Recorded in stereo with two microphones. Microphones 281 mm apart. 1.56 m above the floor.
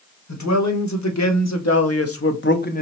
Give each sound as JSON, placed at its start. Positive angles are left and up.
{"t": 0.3, "sound": "a man speaking", "side_deg": 75, "distance_m": 1.5}